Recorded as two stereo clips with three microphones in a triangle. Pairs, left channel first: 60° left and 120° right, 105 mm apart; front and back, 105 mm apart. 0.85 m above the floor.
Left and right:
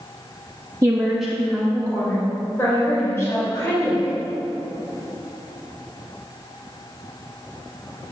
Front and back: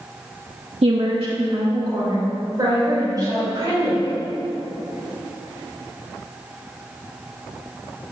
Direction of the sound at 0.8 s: 175° right.